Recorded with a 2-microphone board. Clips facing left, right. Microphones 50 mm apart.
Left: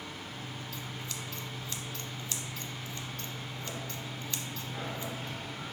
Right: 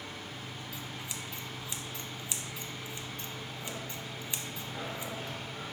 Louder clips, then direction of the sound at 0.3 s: Left 1 dB; 15° right (ahead or behind).